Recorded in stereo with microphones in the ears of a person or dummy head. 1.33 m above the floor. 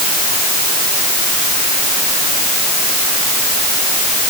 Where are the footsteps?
No footsteps in this recording.